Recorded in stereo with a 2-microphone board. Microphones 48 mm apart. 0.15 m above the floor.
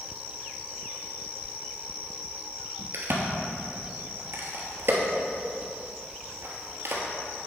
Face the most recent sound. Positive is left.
turn(degrees=-50)  # may be behind; listen again after turning